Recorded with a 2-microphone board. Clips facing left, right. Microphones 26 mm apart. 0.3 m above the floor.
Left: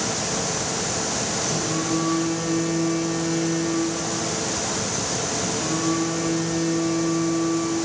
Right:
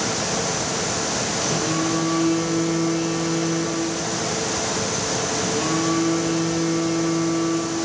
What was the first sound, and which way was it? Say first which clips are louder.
A phone buzzing: right 3 dB; 20° right (ahead or behind).